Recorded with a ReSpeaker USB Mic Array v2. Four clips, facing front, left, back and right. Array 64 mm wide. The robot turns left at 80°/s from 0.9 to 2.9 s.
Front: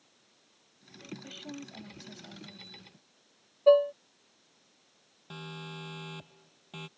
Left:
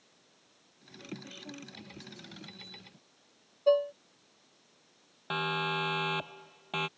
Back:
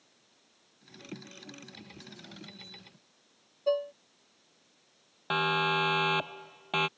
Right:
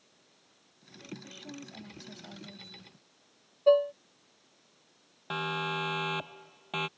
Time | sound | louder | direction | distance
1.2 | a woman speaking | right 1 dB, front 5 dB | 15° left | ?
3.7 | dishes clattering | right 3 dB, front 8 dB | 15° right | ?
5.3 | a siren | left 1 dB, back 17 dB | 175° left | ?